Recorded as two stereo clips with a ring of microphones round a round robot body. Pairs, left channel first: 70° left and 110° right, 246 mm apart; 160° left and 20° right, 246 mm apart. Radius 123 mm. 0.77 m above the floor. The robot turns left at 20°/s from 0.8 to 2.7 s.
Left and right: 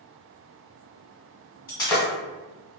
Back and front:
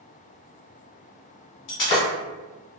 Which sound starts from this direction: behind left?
Breaking glass, at 1.7 s.